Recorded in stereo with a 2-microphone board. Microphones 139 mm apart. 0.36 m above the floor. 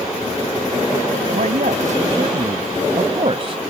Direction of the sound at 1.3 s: 70° right (ahead or behind).